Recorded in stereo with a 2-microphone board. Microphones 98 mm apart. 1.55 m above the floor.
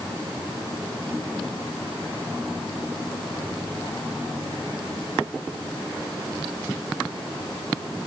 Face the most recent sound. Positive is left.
No sound to turn to.